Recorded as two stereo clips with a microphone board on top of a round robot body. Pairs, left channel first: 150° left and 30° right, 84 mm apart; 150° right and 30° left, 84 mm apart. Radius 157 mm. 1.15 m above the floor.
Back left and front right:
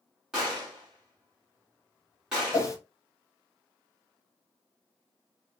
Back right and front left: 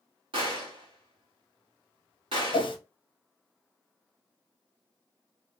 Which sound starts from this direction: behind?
A whoosh, at 2.5 s.